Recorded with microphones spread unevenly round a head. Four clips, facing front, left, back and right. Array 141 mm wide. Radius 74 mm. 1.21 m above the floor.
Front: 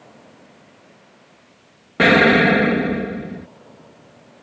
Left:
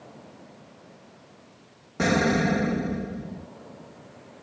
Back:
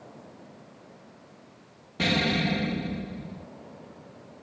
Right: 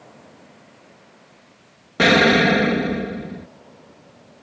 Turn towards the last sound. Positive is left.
turn(degrees=-30)